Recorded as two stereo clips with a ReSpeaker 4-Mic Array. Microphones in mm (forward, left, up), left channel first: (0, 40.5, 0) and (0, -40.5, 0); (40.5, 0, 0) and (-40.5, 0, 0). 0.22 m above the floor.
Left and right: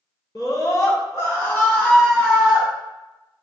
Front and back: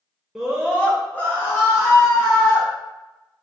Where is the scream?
90° left, 2.5 m; by 2.7 s 15° right, 2 m.